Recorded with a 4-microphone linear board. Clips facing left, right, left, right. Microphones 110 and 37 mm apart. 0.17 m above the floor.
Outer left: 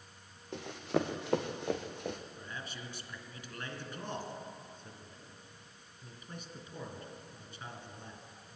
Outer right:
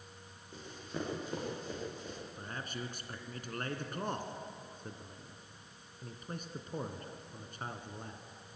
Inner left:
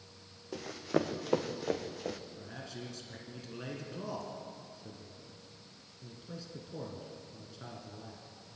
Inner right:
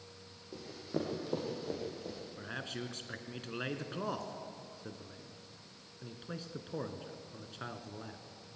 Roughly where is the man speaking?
Right.